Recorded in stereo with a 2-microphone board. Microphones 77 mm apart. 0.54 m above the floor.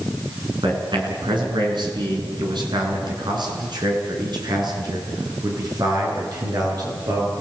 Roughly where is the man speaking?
Right.